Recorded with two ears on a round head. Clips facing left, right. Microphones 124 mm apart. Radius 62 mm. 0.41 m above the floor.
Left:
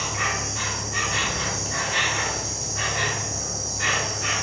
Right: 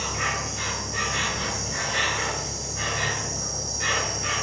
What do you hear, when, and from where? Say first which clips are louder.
0.0 s an insect: left 1 dB; 60° left (ahead or behind), 1.0 m